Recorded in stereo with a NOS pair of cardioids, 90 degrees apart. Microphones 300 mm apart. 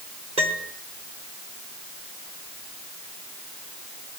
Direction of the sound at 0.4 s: 20° right.